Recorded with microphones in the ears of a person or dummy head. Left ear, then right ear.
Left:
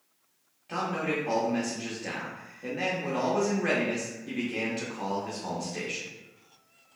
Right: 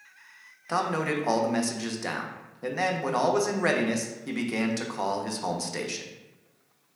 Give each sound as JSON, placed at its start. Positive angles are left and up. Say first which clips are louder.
{"t": 0.7, "sound": "a man speaking", "louder": "right 3 dB", "side_deg": -50, "distance_m": 0.5}